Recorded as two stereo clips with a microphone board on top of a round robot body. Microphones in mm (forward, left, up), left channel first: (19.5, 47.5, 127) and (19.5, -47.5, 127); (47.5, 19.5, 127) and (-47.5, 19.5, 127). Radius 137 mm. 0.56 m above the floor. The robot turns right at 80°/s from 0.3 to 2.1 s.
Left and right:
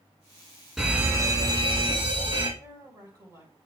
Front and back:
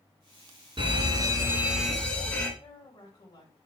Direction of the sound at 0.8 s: 175° right.